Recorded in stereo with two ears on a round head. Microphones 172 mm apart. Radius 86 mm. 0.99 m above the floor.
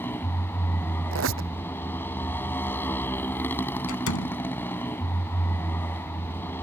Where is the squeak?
80° right.